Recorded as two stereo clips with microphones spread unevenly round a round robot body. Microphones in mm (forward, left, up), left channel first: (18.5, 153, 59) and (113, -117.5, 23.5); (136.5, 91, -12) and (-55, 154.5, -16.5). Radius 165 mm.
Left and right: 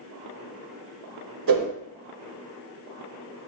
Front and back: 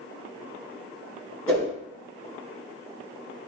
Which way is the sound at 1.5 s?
100° right.